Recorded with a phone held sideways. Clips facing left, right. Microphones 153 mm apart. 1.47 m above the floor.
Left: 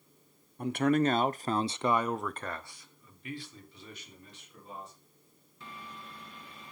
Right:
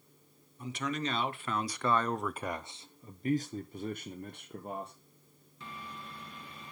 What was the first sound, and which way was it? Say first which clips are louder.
A man speaking: left 10 dB; 60° left (ahead or behind).